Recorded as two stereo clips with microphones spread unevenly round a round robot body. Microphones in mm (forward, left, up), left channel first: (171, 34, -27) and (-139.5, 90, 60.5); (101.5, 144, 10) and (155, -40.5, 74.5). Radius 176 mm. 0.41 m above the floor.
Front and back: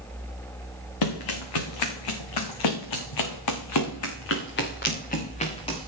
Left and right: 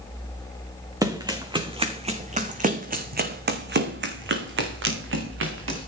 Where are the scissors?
No scissors in this recording.